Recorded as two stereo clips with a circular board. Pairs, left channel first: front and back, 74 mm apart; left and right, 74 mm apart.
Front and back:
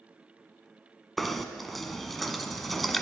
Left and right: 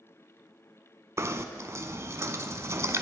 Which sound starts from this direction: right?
Knocking, at 1.2 s.